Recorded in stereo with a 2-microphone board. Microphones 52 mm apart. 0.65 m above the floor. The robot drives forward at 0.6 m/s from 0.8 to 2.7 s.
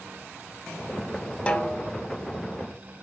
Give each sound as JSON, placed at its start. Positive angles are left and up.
{"t": 1.5, "sound": "a snare drum", "side_deg": 20, "distance_m": 0.5}